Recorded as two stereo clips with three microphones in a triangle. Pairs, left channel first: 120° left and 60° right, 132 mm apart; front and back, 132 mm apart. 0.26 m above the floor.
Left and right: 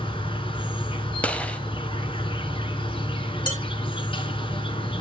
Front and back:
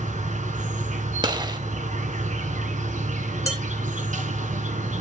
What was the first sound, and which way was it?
An insect, 165° left.